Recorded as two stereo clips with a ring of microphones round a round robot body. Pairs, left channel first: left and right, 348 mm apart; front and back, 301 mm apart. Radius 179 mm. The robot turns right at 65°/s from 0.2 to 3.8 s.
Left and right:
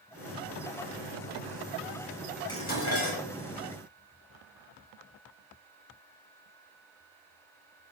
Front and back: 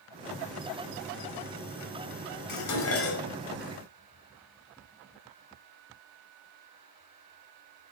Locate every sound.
2.5 s dishes clattering: 10° left, 4.5 m; by 3.2 s 60° left, 4.5 m